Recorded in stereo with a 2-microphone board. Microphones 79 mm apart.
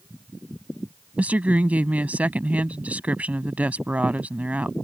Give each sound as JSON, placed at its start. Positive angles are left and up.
{"t": 1.2, "sound": "a woman speaking", "side_deg": -20}